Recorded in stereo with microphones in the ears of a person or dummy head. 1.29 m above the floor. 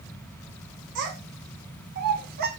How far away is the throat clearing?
I don't hear throat clearing.